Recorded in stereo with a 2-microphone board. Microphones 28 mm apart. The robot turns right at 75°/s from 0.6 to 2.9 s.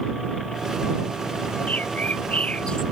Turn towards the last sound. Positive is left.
turn(degrees=160)